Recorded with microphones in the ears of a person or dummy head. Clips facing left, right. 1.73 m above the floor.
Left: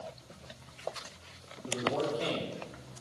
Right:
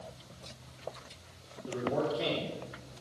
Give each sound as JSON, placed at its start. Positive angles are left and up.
{"t": 1.6, "sound": "a man speaking", "side_deg": -15, "distance_m": 4.0}